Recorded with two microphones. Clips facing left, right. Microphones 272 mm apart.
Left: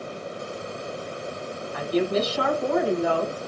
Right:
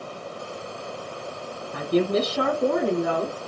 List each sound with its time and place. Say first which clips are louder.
1.7 s a woman speaking: right 2 dB; 60° right (ahead or behind), 5 m; by 3.4 s 45° right (ahead or behind), 5 m